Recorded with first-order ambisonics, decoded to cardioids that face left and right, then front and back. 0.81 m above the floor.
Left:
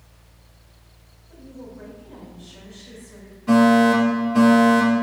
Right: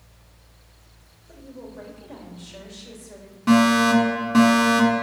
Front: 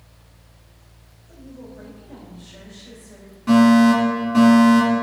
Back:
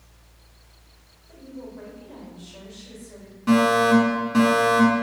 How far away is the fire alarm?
About 2.5 m.